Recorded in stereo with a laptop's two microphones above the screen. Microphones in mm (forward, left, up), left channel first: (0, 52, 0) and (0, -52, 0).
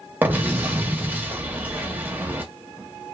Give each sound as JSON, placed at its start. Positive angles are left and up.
{"t": 0.2, "sound": "an explosion", "side_deg": -15, "distance_m": 0.8}